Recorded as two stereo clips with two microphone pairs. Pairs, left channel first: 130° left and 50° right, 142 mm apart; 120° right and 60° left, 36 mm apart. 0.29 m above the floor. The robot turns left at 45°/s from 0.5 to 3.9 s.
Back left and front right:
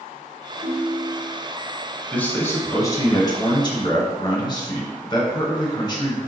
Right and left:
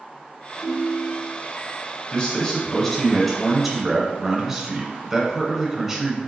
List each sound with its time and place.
0.6 s a ringtone: 5° right, 0.8 m; by 1.4 s 35° right, 0.8 m
2.1 s a man speaking: 155° right, 1.0 m; by 6.2 s 125° left, 1.0 m